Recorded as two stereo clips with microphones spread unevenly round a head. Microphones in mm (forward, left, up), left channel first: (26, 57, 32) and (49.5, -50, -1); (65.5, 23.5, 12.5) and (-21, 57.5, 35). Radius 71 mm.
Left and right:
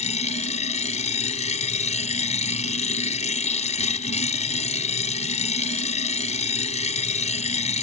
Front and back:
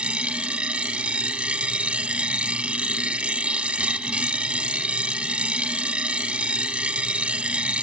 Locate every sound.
0.0 s a machine running: 80° left